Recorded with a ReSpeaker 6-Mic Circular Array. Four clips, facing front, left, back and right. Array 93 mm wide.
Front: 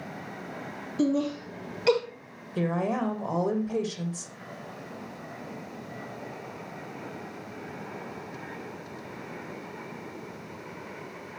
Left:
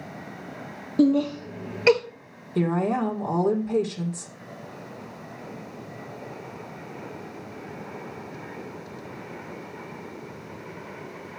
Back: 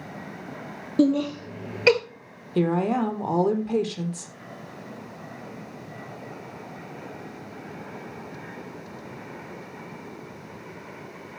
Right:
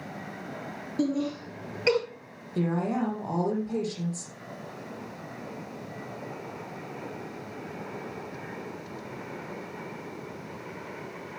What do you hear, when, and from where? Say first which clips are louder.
1.0 s laughter: left 8 dB, back 5 dB; 150° left, 3 m; by 2.0 s 155° left, 1.6 m
2.5 s a woman speaking: left 4 dB, back 5 dB; 160° left, 4 m